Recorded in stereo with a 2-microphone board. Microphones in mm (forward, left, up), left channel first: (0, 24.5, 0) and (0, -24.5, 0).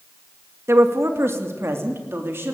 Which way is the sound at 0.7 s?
75° right (ahead or behind).